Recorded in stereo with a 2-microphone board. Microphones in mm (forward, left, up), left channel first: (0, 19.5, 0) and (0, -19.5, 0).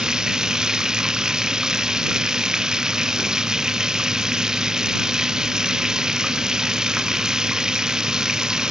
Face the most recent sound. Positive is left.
turn(degrees=-15)  # may be behind; listen again after turning